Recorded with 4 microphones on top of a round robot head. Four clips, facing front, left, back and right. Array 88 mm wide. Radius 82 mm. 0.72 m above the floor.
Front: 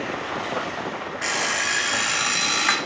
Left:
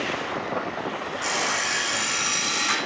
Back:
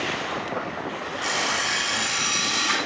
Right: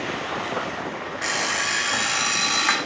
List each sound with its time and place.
1.2 s an alarm clock: 45° right, 0.7 m